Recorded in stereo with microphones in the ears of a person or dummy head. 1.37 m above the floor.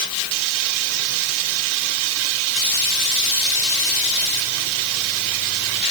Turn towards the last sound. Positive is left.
No sound to turn to.